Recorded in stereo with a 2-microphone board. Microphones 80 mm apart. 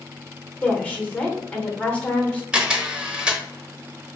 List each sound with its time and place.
0.6 s a woman speaking: 15° left (ahead or behind), 1.0 m
2.5 s a camera shutter: 10° right (ahead or behind), 0.9 m